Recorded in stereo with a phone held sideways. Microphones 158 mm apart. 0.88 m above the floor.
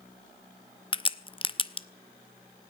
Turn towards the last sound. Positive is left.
turn(degrees=30)  # may be behind; listen again after turning